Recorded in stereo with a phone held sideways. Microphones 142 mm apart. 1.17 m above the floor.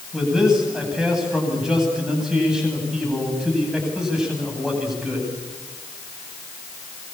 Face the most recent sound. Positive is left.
turn(degrees=-5)  # may be behind; listen again after turning